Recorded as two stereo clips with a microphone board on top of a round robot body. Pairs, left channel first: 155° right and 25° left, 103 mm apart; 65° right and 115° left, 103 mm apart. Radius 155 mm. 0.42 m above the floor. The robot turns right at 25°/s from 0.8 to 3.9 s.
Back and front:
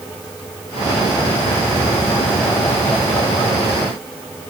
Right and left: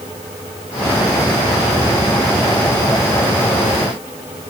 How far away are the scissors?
I don't hear scissors.